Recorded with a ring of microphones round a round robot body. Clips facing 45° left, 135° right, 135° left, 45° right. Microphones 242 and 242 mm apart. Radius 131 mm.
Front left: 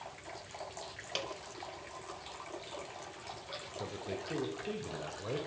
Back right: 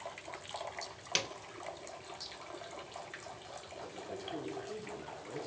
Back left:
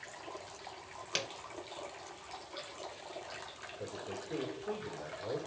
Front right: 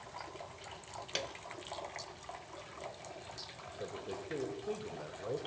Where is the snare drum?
150° right, 0.6 m.